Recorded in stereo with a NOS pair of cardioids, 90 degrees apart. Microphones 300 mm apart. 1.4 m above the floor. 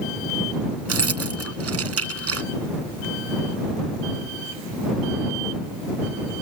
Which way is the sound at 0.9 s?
50° right.